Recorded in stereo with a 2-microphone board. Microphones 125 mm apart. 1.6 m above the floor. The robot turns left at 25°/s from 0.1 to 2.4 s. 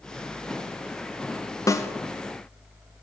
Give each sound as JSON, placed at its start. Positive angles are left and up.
{"t": 1.7, "sound": "a snare drum", "side_deg": 25, "distance_m": 0.6}